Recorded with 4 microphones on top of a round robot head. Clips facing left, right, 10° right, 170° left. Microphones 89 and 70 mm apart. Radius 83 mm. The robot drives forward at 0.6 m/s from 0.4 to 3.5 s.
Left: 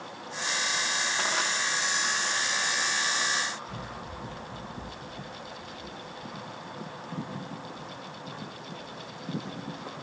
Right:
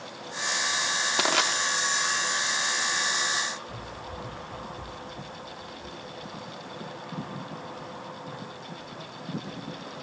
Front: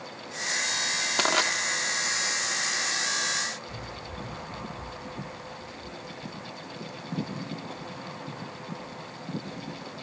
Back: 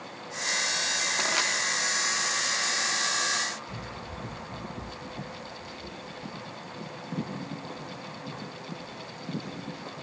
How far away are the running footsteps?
About 2 m.